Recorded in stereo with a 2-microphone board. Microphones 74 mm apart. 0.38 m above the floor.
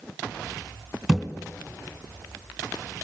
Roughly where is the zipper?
I don't hear a zipper.